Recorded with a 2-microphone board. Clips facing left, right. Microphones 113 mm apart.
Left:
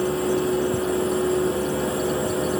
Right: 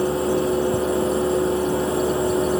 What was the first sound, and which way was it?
Only background noise.